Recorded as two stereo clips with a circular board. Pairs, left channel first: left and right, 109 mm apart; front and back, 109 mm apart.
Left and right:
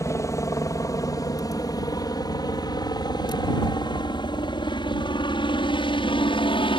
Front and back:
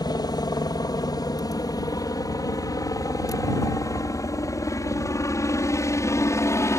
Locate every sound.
0.0 s a helicopter: 35° left; by 6.8 s 60° left